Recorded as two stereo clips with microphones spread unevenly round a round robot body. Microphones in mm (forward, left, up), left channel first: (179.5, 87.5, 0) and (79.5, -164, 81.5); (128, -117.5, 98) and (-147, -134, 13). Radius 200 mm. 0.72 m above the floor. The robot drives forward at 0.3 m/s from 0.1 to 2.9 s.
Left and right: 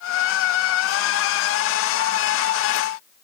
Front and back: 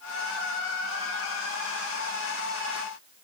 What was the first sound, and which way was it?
Only background noise.